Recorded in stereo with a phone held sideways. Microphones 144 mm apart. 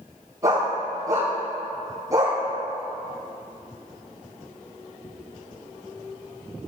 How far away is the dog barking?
About 3.5 m.